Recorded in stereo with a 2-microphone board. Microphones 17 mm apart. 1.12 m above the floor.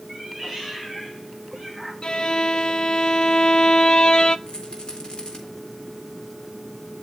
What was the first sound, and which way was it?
A cat meowing, 15° left (ahead or behind).